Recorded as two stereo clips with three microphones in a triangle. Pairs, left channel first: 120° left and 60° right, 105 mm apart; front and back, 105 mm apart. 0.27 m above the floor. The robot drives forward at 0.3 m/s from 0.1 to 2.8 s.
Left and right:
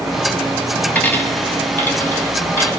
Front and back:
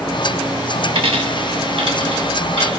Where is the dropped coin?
165° right, 0.5 m; by 2.8 s 175° right, 1.1 m.